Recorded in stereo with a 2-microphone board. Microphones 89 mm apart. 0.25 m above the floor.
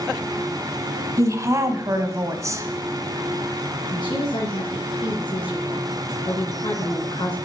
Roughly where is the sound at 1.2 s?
Right.